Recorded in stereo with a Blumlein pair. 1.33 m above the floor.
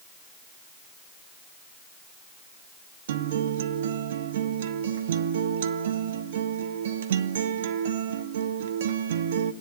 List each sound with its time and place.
3.1 s a guitar: 60° right, 0.9 m